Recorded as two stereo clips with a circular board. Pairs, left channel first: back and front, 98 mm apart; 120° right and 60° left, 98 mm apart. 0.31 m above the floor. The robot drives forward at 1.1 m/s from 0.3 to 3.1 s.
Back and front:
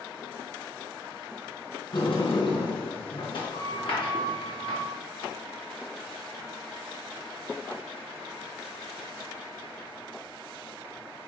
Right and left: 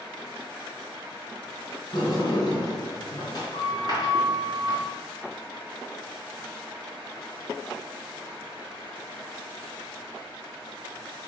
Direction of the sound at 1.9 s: 150° right.